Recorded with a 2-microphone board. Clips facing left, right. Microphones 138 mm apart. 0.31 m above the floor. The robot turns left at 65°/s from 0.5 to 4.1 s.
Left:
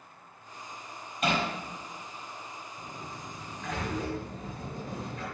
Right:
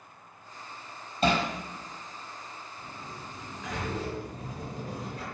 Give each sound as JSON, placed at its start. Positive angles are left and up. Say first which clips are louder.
{"t": 1.2, "sound": "hammering", "louder": "right 3 dB", "side_deg": -30, "distance_m": 4.0}
{"t": 2.8, "sound": "a sliding door", "louder": "left 1 dB", "azimuth_deg": 50, "distance_m": 6.0}